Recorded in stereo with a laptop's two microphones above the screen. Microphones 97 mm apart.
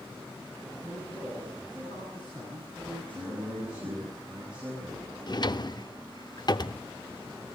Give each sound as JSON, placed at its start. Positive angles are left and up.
{"t": 0.8, "sound": "a man speaking", "side_deg": 20, "distance_m": 9.0}
{"t": 3.1, "sound": "a man speaking", "side_deg": -10, "distance_m": 5.0}
{"t": 5.3, "sound": "a drawer", "side_deg": 45, "distance_m": 0.6}